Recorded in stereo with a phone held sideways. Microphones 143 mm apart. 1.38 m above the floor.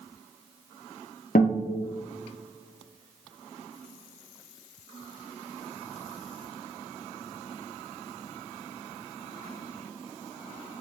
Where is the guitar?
80° left, 0.6 m.